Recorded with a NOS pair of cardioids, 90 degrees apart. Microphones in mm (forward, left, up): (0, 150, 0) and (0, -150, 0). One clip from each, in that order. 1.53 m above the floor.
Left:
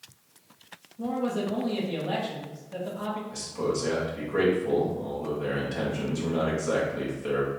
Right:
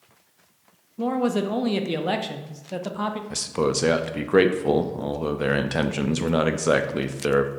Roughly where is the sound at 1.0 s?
Ahead right.